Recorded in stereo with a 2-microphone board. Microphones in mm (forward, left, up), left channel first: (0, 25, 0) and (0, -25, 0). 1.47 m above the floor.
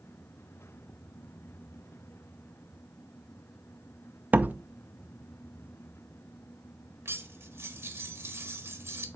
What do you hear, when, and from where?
4.3 s a door slam: 35° right (ahead or behind), 0.5 m
7.0 s cutlery clinking: 55° right (ahead or behind), 1.4 m